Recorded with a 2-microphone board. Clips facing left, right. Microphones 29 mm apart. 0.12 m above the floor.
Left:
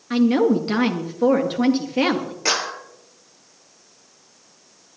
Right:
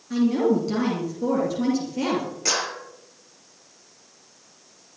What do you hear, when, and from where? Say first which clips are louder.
0.1 s a woman speaking: left 3 dB; 50° left (ahead or behind), 2 m
2.5 s a clap: left 5 dB; 25° left (ahead or behind), 2.5 m